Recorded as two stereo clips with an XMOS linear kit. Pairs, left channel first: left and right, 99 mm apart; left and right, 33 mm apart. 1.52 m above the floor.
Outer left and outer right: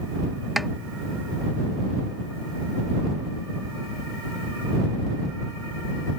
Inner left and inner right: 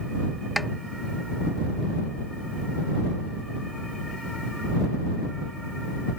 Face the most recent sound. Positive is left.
turn(degrees=0)  # may be behind; listen again after turning